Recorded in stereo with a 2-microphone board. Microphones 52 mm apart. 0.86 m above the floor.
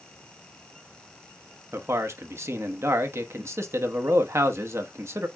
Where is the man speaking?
60° right (ahead or behind), 0.9 m.